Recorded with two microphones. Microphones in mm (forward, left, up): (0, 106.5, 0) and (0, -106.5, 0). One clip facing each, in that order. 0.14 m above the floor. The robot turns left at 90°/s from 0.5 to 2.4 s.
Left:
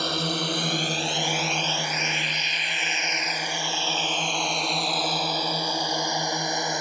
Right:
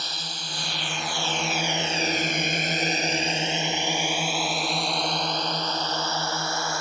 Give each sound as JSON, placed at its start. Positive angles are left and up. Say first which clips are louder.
{"t": 0.0, "sound": "a drone", "louder": "left 13 dB", "side_deg": 60}